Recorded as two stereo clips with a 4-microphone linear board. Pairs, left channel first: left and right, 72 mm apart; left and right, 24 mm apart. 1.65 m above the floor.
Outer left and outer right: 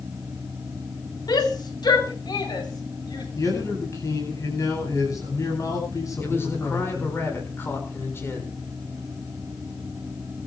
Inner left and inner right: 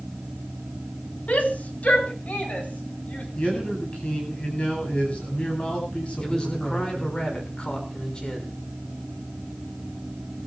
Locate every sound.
1.3 s a shout: 75° left (ahead or behind), 3.5 m; by 3.2 s 85° left, 5 m
3.4 s a man speaking: 50° left (ahead or behind), 10 m
6.2 s a man speaking: 35° left (ahead or behind), 6 m